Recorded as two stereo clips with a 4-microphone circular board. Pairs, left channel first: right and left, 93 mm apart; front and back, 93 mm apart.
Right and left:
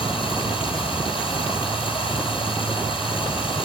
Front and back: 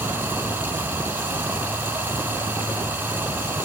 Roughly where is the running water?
Right.